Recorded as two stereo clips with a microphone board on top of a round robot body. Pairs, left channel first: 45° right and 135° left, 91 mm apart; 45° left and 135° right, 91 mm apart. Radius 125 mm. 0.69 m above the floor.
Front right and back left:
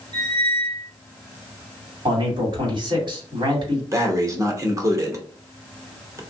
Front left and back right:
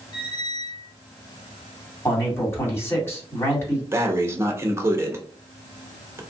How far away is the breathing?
About 1.0 m.